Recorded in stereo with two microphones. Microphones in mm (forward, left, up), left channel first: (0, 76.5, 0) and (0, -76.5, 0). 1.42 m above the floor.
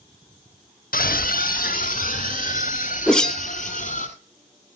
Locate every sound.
0.9 s a scream: 75° left (ahead or behind), 0.9 m; by 4.1 s 60° left (ahead or behind), 5.5 m
3.1 s a whoosh: 5° left (ahead or behind), 0.5 m